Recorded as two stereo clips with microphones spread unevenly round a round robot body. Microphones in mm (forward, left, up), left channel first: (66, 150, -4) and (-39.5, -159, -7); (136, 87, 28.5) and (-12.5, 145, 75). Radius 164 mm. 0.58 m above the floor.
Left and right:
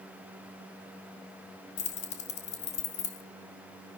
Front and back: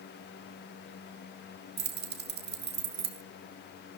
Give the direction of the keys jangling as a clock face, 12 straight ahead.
7 o'clock.